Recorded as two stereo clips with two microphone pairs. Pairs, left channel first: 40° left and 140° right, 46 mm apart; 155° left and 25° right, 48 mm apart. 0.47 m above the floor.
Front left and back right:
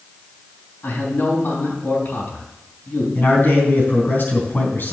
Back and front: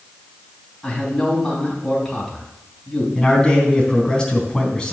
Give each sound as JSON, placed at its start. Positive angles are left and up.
{"t": 0.8, "sound": "a man speaking", "azimuth_deg": 70, "distance_m": 3.0}
{"t": 3.1, "sound": "a man speaking", "azimuth_deg": 80, "distance_m": 3.5}